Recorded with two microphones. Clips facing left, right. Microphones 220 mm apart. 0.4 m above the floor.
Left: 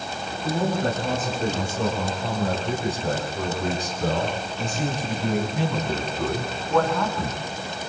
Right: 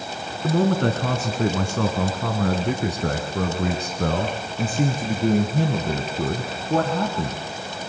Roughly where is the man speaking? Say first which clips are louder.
Right 4 dB; right.